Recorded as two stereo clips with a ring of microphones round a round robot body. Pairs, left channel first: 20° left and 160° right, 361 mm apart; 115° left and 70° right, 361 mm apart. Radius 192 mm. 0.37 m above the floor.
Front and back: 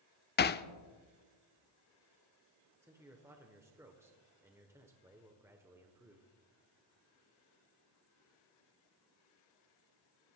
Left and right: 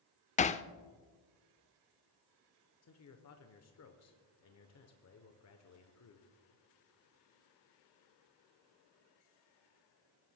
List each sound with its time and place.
0.4 s hammering: 60° left, 0.6 m
2.8 s a man speaking: 125° left, 1.3 m